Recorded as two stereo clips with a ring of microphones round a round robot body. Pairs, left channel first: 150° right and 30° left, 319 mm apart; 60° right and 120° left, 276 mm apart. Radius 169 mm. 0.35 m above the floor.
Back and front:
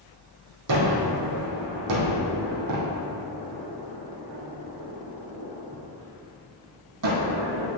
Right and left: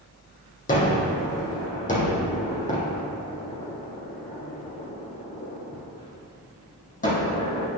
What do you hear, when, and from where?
0.7 s a gunshot: straight ahead, 3 m